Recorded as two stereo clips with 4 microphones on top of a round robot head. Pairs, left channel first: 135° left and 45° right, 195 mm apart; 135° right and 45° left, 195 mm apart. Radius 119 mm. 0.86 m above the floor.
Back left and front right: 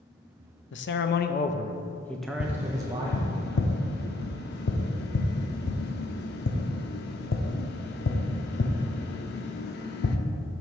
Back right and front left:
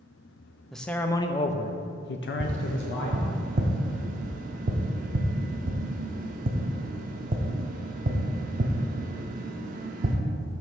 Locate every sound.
0.7 s a man speaking: 140° left, 0.7 m; by 3.2 s 115° right, 1.0 m
2.4 s tapping: 100° left, 0.6 m